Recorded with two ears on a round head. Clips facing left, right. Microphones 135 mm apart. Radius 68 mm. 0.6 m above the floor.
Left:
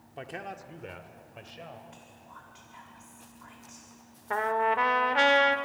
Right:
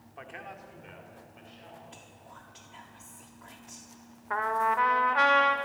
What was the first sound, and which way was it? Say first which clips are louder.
A man speaking: left 5 dB; 35° left (ahead or behind).